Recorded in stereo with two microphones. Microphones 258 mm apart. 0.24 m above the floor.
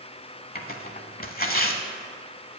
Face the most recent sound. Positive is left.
turn(degrees=35)  # may be behind; listen again after turning